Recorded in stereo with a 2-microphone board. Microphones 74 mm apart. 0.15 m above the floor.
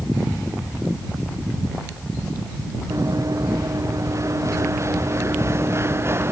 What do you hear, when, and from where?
2.9 s running footsteps: 50° right (ahead or behind); by 6.3 s 35° right (ahead or behind)